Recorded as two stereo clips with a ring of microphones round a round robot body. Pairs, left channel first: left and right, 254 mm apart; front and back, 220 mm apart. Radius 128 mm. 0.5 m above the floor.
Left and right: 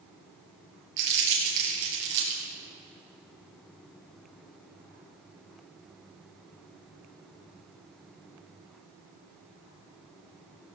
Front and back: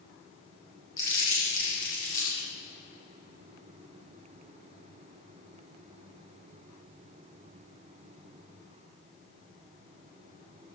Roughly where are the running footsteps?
I don't hear running footsteps.